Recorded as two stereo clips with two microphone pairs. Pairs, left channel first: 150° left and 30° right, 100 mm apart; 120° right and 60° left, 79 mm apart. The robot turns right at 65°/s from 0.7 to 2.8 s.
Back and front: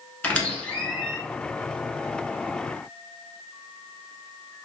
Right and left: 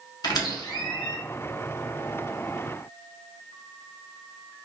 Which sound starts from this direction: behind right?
A squeak, at 0.2 s.